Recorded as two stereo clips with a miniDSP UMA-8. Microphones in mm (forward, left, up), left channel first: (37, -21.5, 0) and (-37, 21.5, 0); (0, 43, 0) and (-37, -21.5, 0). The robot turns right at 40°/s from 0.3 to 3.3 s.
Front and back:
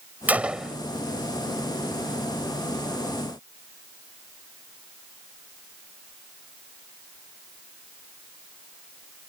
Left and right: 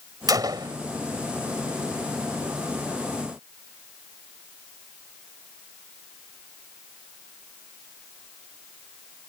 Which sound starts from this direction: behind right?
A gunshot, at 0.3 s.